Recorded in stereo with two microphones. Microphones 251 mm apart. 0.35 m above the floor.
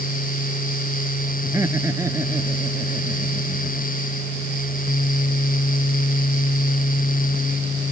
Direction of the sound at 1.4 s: 10° right (ahead or behind).